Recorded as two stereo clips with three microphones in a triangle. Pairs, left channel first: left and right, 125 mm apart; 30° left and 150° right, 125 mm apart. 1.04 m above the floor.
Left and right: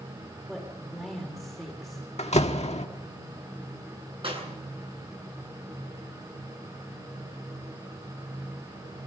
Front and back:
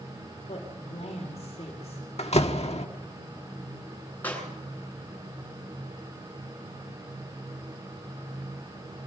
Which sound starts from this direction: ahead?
A woman speaking, at 0.5 s.